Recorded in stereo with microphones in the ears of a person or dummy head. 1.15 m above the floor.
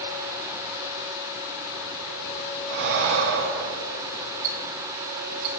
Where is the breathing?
60° right (ahead or behind), 0.6 m.